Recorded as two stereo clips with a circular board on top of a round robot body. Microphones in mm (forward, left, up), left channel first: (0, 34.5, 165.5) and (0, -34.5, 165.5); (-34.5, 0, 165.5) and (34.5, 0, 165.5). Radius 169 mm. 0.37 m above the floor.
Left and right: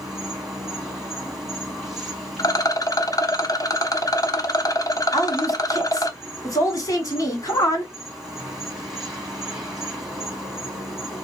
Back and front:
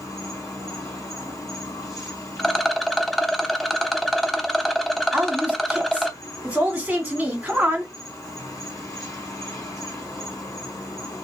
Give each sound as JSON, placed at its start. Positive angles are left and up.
{"t": 0.0, "sound": "an insect", "azimuth_deg": -175, "distance_m": 2.5}
{"t": 2.4, "sound": "a rattle", "azimuth_deg": 90, "distance_m": 0.8}
{"t": 5.1, "sound": "a woman speaking", "azimuth_deg": 65, "distance_m": 1.8}